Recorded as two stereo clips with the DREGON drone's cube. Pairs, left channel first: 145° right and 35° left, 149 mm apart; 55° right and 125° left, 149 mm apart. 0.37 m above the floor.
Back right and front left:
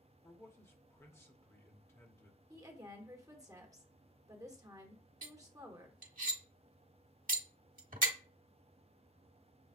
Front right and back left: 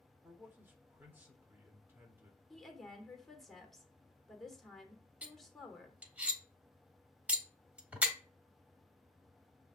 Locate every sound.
0.2 s a man speaking: straight behind, 1.0 m
2.5 s a woman speaking: 25° left, 1.0 m
5.2 s cutlery clinking: 45° left, 1.1 m